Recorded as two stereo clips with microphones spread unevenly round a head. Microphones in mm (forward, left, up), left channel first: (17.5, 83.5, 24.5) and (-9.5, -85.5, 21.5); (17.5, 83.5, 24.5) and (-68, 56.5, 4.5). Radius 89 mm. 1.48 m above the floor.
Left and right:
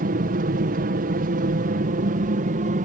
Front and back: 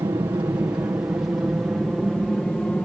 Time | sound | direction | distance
0.0 | an aircraft | 110° right | ?